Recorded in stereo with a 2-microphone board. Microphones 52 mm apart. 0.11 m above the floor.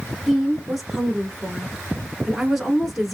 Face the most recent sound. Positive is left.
turn(degrees=0)  # may be behind; listen again after turning